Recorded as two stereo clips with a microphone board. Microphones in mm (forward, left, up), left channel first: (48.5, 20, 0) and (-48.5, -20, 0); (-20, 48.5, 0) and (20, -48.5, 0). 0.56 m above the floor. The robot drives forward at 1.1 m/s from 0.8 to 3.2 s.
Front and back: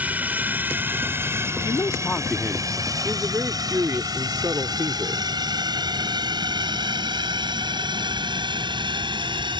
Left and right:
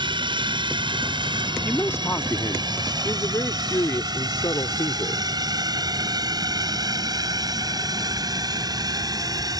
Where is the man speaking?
40° left; by 5.3 s 150° left.